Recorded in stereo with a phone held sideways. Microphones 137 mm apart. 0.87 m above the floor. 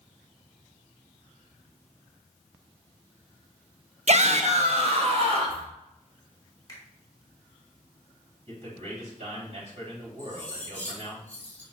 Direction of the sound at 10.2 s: 15° left (ahead or behind).